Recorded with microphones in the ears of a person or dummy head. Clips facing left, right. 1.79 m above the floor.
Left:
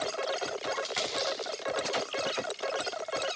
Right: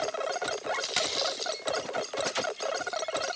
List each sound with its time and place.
0.7 s a dropped coin: 50° right (ahead or behind), 7 m